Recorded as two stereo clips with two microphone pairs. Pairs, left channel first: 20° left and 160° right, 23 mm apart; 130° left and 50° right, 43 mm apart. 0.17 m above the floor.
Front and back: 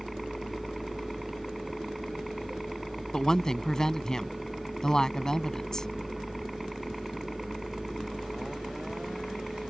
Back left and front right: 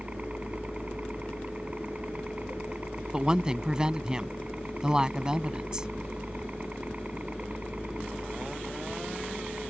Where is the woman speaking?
Straight ahead.